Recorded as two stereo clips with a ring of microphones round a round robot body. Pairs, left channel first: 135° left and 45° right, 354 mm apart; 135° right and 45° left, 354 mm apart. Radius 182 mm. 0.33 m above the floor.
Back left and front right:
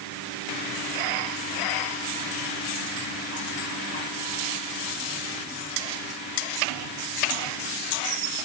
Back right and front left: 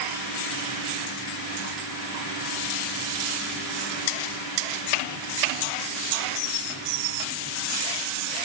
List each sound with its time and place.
Only background noise.